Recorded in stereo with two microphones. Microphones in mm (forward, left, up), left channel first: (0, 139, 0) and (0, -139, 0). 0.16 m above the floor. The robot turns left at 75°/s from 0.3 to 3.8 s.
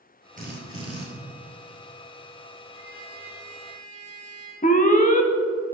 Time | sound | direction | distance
0.4 | a drill | 30° right | 2 m
2.7 | a trumpet | 175° right | 3.5 m
4.6 | an alarm | 30° left (ahead or behind) | 0.8 m